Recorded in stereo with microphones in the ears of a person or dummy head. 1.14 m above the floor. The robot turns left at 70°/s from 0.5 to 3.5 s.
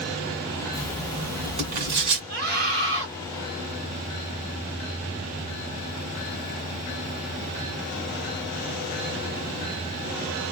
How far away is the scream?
About 2.5 m.